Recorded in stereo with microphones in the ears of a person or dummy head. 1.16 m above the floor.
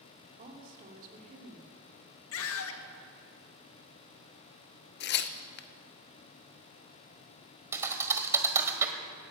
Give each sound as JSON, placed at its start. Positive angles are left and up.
{"t": 0.4, "sound": "a woman speaking", "side_deg": -50, "distance_m": 3.0}
{"t": 2.3, "sound": "a scream", "side_deg": 65, "distance_m": 1.4}
{"t": 5.0, "sound": "tearing paper", "side_deg": 50, "distance_m": 0.6}
{"t": 7.7, "sound": "a thud", "side_deg": -15, "distance_m": 1.6}